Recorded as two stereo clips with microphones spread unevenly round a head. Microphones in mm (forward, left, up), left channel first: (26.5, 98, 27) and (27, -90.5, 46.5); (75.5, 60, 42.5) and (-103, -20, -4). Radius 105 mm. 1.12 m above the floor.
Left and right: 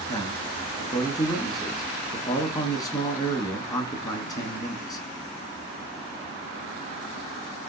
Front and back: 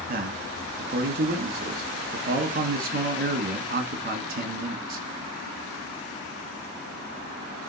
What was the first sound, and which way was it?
A man speaking, 160° left.